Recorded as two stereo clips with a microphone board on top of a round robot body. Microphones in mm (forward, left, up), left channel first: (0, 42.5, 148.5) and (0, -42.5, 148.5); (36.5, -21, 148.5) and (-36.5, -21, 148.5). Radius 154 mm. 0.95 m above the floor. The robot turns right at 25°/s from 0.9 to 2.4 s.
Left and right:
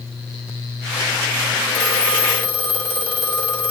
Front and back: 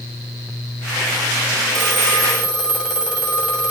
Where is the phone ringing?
85° left, 2.5 m; by 3.7 s 100° left, 2.5 m.